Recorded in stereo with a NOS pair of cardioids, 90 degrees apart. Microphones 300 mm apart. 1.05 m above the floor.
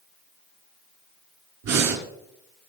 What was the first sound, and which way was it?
Breathing, 65° right.